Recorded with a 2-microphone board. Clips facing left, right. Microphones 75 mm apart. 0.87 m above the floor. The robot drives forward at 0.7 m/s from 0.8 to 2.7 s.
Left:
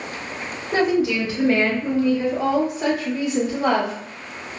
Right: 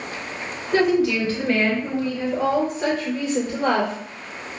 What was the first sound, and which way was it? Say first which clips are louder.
A woman speaking: right 1 dB; 25° left (ahead or behind).